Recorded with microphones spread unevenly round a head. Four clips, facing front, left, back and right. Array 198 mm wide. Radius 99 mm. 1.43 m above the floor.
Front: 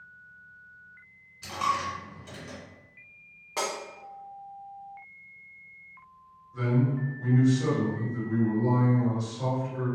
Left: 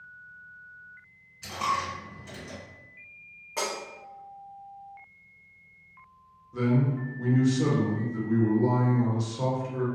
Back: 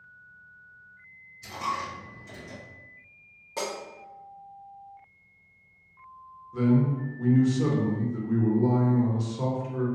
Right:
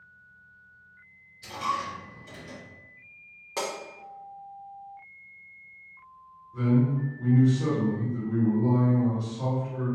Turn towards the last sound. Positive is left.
turn(degrees=120)